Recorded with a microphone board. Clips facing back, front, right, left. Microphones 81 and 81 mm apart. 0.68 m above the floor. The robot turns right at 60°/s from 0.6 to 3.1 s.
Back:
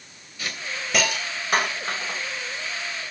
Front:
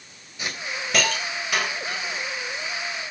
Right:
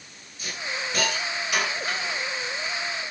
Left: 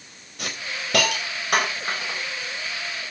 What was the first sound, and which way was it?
A hiss, 70° left.